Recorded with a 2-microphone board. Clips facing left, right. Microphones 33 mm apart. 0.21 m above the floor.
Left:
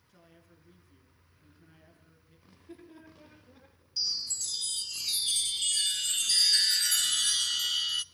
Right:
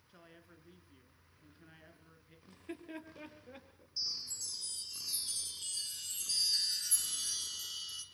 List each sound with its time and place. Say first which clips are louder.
0.1 s a man speaking: right 1 dB; 25° right (ahead or behind), 3 m
2.5 s laughter: right 4 dB; 70° right (ahead or behind), 5.5 m
4.0 s a chime: left 7 dB; 70° left (ahead or behind), 0.8 m